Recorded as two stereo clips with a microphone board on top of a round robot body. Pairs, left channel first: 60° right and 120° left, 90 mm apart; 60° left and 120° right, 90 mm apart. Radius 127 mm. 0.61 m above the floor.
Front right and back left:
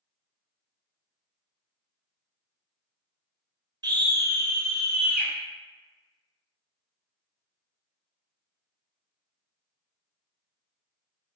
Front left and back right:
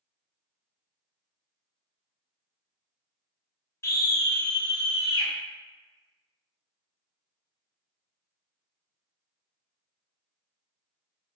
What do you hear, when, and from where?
3.8 s a scream: 110° left, 0.9 m; by 5.3 s 20° left, 1.1 m